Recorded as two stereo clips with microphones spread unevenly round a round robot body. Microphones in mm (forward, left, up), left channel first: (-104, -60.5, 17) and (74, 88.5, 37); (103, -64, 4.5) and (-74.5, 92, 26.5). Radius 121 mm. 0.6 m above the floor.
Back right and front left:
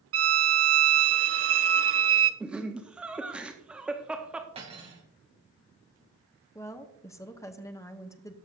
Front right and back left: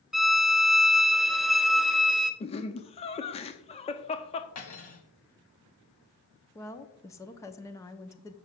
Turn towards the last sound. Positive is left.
turn(degrees=-90)